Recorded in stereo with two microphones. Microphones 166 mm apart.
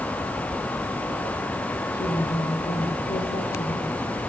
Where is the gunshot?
No gunshot in this recording.